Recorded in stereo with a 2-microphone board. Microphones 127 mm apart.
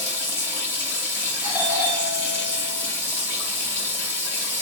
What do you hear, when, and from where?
0.0 s running water: 15° left (ahead or behind), 1.8 m
1.4 s a doorbell: 10° right (ahead or behind), 1.6 m